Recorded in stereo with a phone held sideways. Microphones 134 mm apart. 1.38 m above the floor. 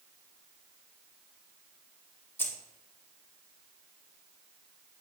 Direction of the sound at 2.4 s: 15° left (ahead or behind).